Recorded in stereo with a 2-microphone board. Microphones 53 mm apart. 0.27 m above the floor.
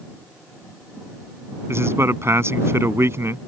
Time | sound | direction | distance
1.7 | a man speaking | 55° right (ahead or behind) | ?